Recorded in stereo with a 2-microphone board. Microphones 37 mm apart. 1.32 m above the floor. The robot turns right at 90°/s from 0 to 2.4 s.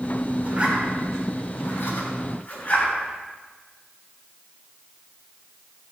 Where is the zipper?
45° right (ahead or behind), 5 m; by 2.9 s 50° left (ahead or behind), 5 m.